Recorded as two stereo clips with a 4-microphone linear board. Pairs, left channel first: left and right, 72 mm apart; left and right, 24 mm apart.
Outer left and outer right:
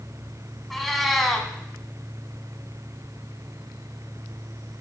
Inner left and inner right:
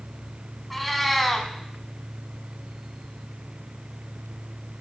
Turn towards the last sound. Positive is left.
turn(degrees=0)  # may be behind; listen again after turning